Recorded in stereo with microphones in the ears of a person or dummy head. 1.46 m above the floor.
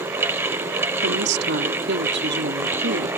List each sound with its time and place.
1.0 s a woman speaking: 60° right (ahead or behind)